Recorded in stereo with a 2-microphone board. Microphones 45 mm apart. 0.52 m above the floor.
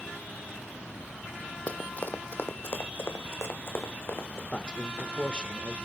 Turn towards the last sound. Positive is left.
turn(degrees=25)  # may be behind; listen again after turning